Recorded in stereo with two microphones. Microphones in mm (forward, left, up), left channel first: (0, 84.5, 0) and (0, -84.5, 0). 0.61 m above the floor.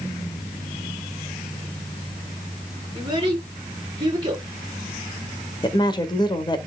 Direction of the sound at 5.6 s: 25° left (ahead or behind).